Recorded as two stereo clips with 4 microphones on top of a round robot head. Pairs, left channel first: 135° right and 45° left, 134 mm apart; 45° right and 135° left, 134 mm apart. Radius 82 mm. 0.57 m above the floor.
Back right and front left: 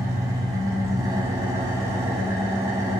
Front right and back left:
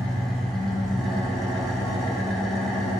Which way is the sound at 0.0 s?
35° left.